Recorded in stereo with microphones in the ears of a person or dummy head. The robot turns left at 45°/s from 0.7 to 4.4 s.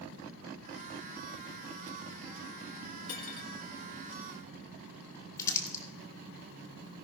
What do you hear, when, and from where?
3.1 s cutlery clinking: 55° left (ahead or behind), 1.7 m; by 3.5 s 40° left (ahead or behind), 1.7 m
5.4 s crumpling: 20° left (ahead or behind), 1.7 m